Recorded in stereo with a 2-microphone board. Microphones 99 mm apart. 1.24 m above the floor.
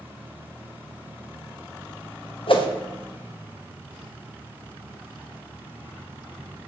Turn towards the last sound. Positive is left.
turn(degrees=65)  # may be behind; listen again after turning